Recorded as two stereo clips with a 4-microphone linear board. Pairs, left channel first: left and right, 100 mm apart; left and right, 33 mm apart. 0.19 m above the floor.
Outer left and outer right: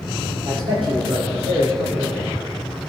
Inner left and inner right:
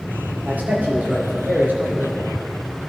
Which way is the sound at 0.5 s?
70° right (ahead or behind).